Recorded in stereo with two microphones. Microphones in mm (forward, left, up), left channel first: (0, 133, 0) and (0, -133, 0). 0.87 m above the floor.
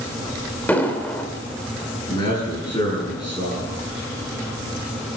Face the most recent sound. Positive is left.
turn(degrees=15)  # may be behind; listen again after turning